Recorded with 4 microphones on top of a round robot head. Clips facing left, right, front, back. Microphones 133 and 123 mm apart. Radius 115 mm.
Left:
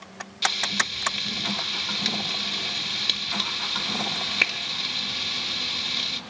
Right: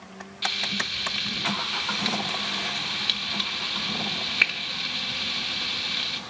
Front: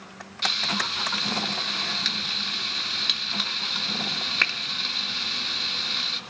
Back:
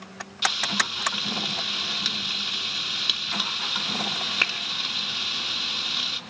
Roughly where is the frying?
Left.